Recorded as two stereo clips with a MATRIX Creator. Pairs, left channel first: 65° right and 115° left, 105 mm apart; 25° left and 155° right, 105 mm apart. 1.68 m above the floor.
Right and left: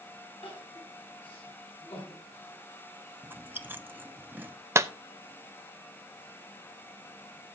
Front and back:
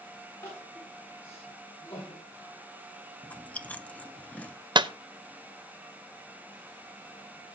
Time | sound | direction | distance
0.4 | crying | 40° right | 8.5 m
3.2 | chewing | 75° left | 0.5 m
4.8 | a clap | 170° left | 0.6 m